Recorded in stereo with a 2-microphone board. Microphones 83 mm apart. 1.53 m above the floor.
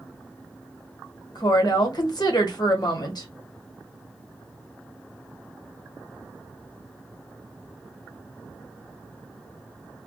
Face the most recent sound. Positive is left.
turn(degrees=60)  # may be behind; listen again after turning